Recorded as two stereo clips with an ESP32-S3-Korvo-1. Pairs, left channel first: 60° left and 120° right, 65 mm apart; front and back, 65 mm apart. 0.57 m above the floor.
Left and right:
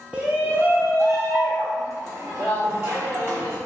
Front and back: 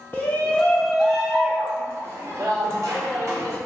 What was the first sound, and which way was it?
A shout, 50° right.